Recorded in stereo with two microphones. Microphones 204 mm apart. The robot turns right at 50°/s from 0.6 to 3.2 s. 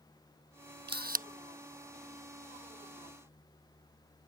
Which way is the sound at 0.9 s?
60° right (ahead or behind).